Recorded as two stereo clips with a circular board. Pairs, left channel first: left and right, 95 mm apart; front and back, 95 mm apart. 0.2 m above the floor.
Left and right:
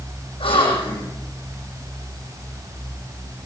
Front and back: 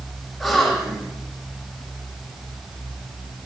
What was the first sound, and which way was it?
A gasp, 90° left.